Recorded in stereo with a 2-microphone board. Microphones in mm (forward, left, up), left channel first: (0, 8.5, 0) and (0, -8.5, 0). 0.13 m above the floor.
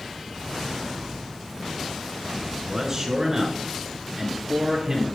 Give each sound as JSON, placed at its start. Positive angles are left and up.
{"t": 2.5, "sound": "a man speaking", "side_deg": -25, "distance_m": 1.4}